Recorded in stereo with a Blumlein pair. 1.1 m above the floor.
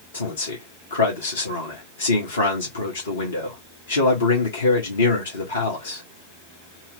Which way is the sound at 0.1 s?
70° left.